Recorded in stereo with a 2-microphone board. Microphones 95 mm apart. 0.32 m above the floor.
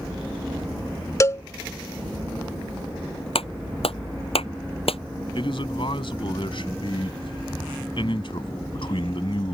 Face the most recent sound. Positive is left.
turn(degrees=65)  # may be behind; listen again after turning